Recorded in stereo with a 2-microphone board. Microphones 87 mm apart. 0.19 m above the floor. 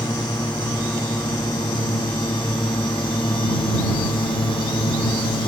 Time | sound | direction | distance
0.0 | a drone | 55° left (ahead or behind) | ?